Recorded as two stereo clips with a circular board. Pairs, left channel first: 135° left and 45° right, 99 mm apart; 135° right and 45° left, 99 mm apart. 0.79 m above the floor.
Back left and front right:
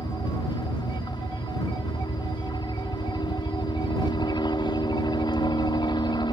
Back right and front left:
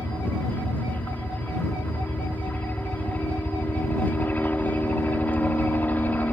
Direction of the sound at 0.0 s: 155° left.